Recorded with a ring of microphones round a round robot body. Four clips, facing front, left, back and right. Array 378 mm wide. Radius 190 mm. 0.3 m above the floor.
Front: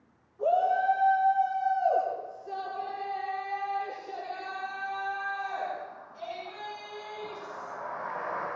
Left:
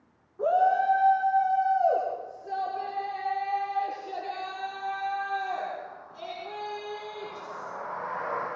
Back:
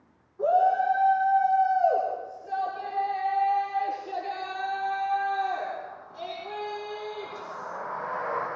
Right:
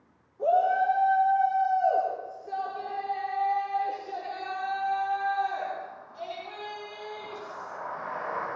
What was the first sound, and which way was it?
A shout, 105° left.